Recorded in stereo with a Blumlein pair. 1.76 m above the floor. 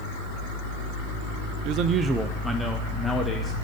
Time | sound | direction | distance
1.6 | a man speaking | 45° right | 0.5 m